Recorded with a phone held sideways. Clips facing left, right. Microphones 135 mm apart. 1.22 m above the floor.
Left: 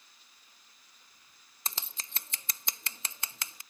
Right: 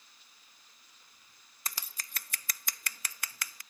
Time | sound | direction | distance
1.6 | scissors | 25° left (ahead or behind) | ?